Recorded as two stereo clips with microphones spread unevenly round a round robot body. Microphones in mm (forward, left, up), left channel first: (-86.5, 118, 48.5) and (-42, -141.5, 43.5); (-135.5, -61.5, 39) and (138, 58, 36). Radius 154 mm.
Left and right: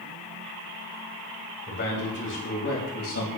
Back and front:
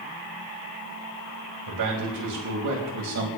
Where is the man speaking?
45° left, 5 m; by 3.3 s 60° left, 5.5 m.